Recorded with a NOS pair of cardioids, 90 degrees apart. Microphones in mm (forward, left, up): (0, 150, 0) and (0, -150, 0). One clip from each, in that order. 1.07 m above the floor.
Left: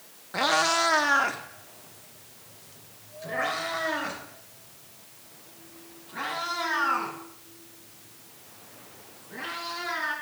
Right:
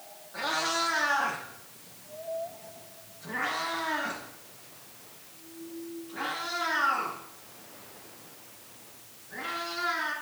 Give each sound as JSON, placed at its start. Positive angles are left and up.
{"t": 0.3, "sound": "a cat meowing", "azimuth_deg": 70, "distance_m": 0.9}